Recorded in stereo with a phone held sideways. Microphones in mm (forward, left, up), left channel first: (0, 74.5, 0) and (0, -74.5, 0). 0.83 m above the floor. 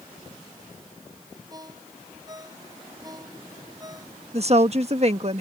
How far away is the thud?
I don't hear a thud.